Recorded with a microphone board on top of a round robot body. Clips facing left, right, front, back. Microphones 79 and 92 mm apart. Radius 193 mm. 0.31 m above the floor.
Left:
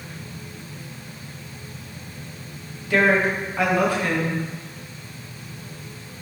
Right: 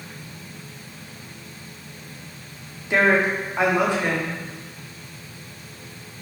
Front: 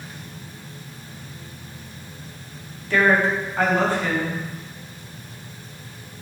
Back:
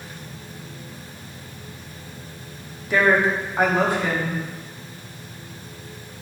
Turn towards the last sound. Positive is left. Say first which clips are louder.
# even, even
turn(degrees=-125)